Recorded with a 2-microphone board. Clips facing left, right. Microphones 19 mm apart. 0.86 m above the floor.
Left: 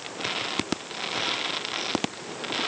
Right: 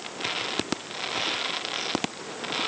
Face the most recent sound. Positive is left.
No sound to turn to.